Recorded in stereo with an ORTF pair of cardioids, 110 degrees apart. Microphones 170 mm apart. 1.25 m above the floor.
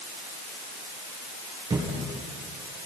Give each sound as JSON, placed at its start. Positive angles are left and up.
{"t": 1.7, "sound": "a thud", "azimuth_deg": -30, "distance_m": 8.5}